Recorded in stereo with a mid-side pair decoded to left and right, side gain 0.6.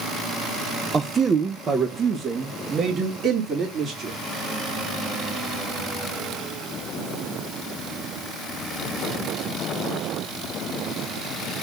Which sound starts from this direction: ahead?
A man speaking, at 0.9 s.